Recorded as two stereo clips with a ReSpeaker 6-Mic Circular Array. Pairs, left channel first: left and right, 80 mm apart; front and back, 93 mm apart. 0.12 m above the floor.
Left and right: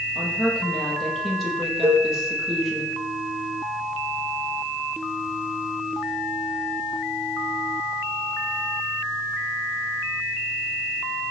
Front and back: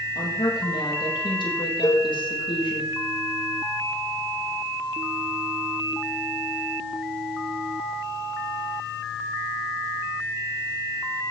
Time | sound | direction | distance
0.1 | a woman speaking | straight ahead | 4.5 m
1.8 | a cowbell | 40° right | 1.3 m